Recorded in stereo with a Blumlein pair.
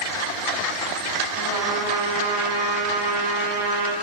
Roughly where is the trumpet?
Ahead right.